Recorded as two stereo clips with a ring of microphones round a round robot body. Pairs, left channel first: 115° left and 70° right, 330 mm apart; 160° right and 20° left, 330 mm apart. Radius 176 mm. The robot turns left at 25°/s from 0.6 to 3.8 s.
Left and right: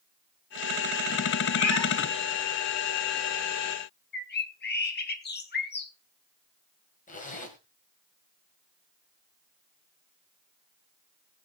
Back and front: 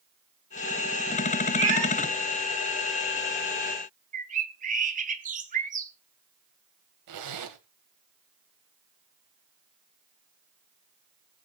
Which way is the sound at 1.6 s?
95° left.